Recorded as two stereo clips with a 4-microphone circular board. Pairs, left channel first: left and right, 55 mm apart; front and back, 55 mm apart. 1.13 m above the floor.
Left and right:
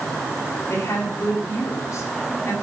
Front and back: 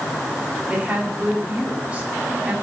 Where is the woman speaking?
110° left, 4.5 m.